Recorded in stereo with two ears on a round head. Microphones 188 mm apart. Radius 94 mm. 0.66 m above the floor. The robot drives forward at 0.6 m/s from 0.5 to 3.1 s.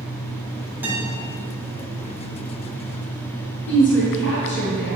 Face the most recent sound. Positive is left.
turn(degrees=60)  # may be behind; listen again after turning